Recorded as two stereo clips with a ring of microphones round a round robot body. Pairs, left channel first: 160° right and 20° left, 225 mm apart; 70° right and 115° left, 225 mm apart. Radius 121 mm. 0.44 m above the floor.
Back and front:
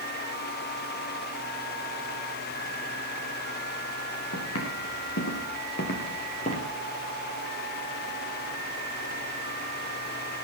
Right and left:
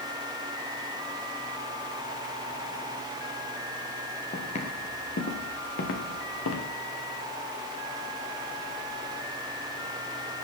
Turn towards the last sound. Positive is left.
turn(degrees=-95)